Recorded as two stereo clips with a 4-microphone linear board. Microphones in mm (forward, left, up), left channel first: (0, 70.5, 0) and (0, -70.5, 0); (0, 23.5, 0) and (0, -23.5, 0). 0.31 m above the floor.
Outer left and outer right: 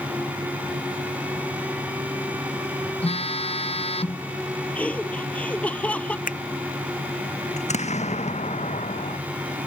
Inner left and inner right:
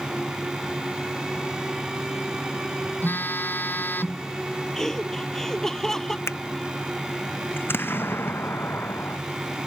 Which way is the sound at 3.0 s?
45° left (ahead or behind).